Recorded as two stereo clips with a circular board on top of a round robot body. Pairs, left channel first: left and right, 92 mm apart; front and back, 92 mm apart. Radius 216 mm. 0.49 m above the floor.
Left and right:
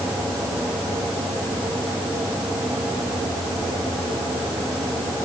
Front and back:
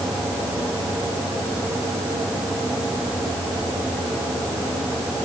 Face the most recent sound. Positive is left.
No sound to turn to.